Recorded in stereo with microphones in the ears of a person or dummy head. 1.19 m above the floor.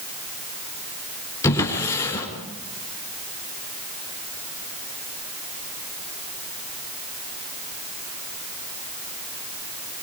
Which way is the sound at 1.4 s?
20° left (ahead or behind).